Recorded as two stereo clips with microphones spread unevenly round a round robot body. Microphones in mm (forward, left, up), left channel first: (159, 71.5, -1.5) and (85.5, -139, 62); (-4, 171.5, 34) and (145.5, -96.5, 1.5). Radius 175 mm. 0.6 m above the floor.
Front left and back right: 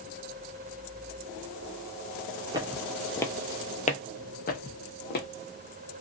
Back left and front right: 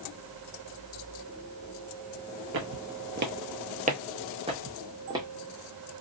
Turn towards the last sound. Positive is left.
turn(degrees=20)